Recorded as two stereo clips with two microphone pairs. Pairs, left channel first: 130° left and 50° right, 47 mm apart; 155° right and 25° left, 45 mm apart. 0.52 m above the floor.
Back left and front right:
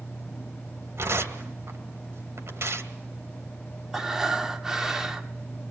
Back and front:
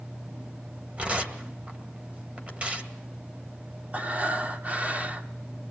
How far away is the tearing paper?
About 2.5 m.